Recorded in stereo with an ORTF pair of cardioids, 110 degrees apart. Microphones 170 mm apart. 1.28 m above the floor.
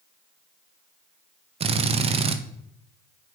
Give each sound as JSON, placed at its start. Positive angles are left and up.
{"t": 1.6, "sound": "a drill", "azimuth_deg": -35, "distance_m": 0.9}